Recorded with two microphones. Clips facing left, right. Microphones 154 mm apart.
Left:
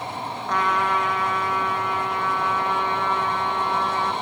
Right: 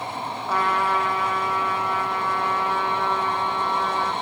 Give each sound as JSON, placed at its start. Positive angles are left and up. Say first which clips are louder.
{"t": 0.5, "sound": "a trumpet", "louder": "even", "side_deg": -10, "distance_m": 3.0}